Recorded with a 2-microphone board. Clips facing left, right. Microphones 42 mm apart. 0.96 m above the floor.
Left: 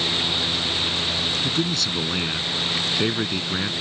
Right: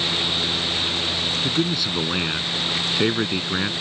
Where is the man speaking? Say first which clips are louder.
Right 1 dB; 15° right (ahead or behind).